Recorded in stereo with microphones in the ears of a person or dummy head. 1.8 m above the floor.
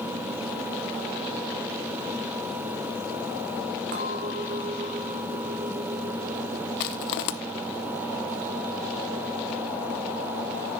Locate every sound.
3.9 s a clink: 45° right (ahead or behind), 1.8 m
6.8 s crushing: 60° left (ahead or behind), 0.8 m